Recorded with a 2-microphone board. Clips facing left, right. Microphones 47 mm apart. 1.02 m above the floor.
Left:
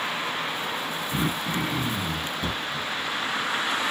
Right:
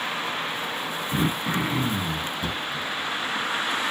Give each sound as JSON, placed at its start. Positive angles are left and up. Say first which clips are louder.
{"t": 1.1, "sound": "throat clearing", "louder": "right 3 dB", "side_deg": -45, "distance_m": 0.9}
{"t": 2.4, "sound": "knocking", "louder": "even", "side_deg": -10, "distance_m": 1.4}